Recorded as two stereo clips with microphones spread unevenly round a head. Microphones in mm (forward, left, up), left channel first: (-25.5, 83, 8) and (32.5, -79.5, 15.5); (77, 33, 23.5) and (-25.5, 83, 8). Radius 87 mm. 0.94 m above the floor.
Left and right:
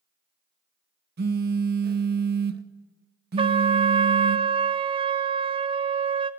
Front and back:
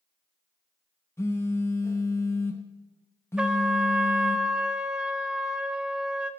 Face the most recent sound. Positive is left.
turn(degrees=-130)